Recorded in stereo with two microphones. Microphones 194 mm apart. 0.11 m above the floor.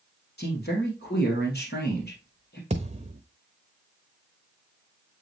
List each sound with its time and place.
0.4 s a man speaking: 55° left (ahead or behind), 2.5 m
2.7 s a thud: 35° right (ahead or behind), 0.8 m